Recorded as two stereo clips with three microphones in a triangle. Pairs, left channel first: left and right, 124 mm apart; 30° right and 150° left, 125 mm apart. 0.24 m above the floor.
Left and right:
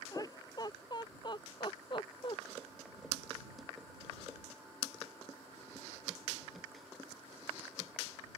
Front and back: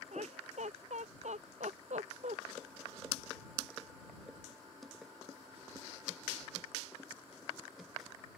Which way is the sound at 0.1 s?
145° left.